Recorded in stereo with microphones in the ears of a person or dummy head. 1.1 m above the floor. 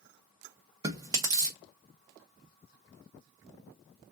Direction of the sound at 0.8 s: 20° right (ahead or behind).